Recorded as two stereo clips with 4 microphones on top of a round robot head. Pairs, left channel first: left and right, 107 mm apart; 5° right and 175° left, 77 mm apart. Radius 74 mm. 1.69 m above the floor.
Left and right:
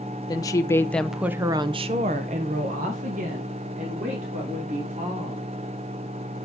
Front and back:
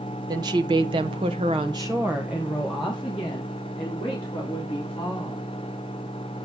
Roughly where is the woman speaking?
Behind left.